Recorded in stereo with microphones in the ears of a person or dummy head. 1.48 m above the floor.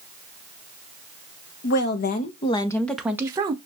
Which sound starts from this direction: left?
A woman speaking, at 1.6 s.